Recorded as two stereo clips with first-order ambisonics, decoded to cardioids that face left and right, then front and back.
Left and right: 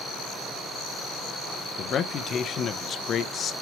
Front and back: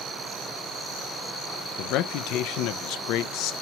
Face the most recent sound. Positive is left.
turn(degrees=30)